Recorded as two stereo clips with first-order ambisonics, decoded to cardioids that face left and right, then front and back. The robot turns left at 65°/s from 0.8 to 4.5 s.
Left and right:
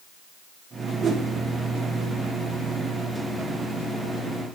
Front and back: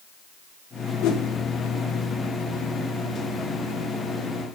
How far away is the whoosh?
About 0.8 m.